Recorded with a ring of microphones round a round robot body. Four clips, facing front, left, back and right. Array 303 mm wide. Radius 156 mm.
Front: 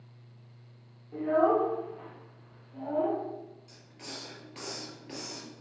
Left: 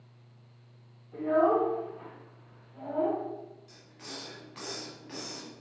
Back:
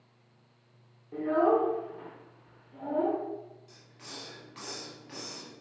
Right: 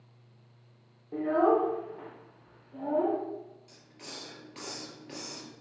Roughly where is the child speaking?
Right.